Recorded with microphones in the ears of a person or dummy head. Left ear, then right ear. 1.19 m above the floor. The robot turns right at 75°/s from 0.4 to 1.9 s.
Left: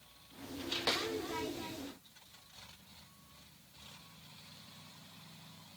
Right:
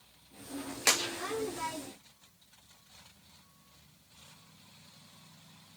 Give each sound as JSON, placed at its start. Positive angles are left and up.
{"t": 0.9, "sound": "a clap", "side_deg": -65, "distance_m": 1.6}